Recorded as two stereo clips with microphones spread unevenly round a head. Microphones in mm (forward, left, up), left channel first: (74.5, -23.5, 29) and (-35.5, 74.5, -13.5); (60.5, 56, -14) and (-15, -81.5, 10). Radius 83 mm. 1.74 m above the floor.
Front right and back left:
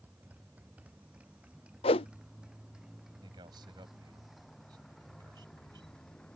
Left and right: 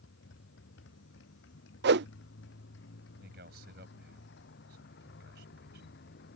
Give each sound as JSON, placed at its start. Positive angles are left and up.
{"t": 0.0, "sound": "a motorcycle", "azimuth_deg": 60}
{"t": 1.8, "sound": "a whoosh", "azimuth_deg": -100}
{"t": 3.2, "sound": "a man speaking", "azimuth_deg": -155}